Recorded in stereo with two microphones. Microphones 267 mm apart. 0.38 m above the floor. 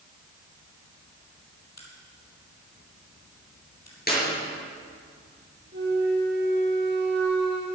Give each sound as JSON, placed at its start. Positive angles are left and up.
{"t": 1.8, "sound": "a crack", "side_deg": 75, "distance_m": 4.0}
{"t": 4.1, "sound": "a clap", "side_deg": 35, "distance_m": 5.5}
{"t": 5.7, "sound": "a flute", "side_deg": -40, "distance_m": 4.5}